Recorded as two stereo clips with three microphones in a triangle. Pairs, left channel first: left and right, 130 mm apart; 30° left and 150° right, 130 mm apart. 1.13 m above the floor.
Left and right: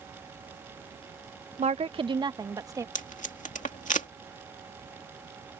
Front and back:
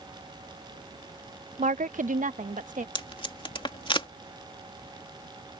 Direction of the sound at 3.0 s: 80° left.